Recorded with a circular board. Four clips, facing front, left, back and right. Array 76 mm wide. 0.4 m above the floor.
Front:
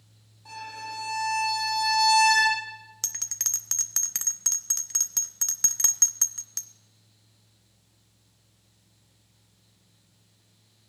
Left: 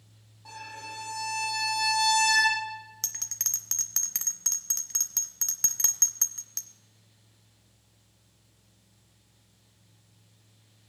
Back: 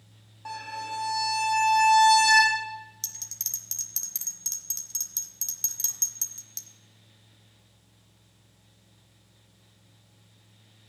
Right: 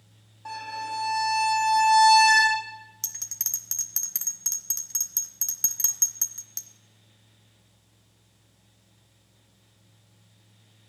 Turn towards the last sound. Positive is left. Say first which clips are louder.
# left 2 dB, front 6 dB
turn(degrees=15)